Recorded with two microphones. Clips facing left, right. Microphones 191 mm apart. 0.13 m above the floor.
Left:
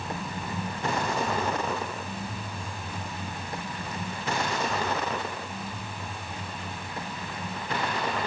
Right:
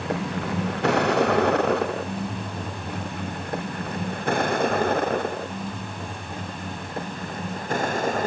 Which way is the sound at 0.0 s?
75° right (ahead or behind).